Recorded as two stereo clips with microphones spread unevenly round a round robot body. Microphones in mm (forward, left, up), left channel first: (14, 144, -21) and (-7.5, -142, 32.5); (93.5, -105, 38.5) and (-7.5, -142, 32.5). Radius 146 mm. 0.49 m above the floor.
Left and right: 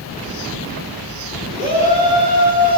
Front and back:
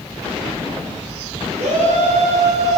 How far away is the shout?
About 6 m.